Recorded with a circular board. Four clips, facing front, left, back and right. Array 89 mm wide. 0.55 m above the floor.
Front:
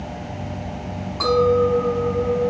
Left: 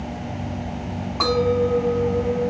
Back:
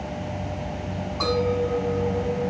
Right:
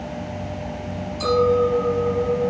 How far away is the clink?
About 5 m.